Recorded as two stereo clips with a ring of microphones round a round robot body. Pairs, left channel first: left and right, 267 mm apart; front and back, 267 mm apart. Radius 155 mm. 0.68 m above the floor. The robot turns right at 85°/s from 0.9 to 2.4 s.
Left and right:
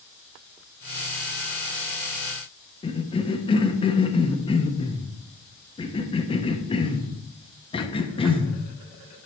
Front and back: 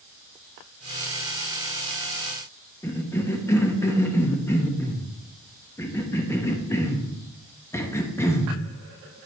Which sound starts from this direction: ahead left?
A cough, at 2.8 s.